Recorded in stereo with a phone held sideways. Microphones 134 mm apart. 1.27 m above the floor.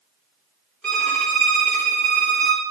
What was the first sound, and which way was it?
A violin, 10° left (ahead or behind).